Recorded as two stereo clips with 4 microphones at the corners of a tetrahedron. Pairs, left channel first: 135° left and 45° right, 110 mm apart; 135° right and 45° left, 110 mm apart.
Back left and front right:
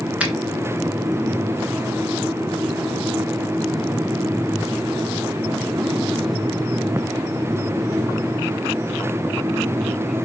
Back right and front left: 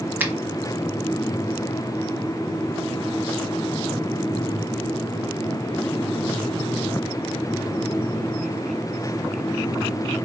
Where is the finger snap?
15° left, 1.0 m.